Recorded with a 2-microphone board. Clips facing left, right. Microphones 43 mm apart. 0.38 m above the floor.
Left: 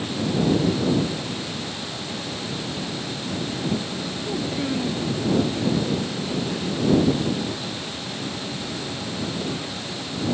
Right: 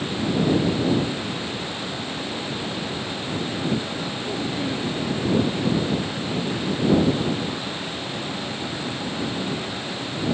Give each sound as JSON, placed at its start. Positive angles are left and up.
{"t": 4.2, "sound": "a child speaking", "side_deg": 10}